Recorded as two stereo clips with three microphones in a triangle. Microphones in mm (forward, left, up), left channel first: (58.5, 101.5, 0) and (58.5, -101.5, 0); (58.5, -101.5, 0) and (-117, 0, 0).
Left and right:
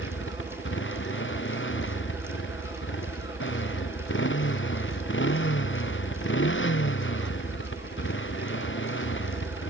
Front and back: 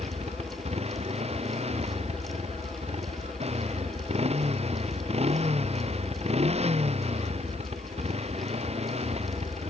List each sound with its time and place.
0.0 s a motorcycle: 95° left